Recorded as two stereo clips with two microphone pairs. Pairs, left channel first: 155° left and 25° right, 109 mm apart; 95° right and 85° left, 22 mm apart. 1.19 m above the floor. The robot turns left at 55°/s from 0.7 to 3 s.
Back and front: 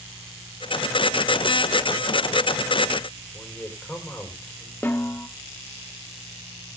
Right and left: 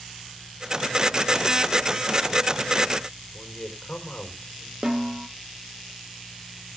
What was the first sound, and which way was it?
A man speaking, 125° right.